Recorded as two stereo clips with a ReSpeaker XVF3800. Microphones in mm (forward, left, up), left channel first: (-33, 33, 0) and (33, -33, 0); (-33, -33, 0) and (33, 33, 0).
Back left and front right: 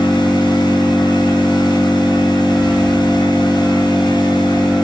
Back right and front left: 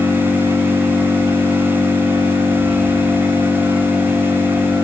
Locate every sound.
0.0 s an engine running: 30° left, 4 m